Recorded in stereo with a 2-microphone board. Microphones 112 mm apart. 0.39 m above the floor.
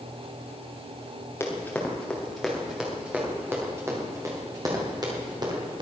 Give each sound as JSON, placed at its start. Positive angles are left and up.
{"t": 1.4, "sound": "running footsteps", "side_deg": 20, "distance_m": 4.5}